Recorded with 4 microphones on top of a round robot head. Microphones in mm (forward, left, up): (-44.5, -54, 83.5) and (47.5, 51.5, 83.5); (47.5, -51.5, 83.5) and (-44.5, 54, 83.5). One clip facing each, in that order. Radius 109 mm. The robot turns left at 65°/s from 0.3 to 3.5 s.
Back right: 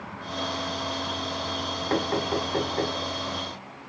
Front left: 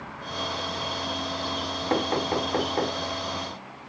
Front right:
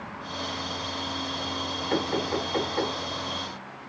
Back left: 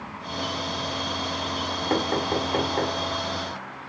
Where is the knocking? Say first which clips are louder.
Front left 1 dB, back left 2 dB; 115° left, 3 m; by 3.0 s 50° left, 3 m.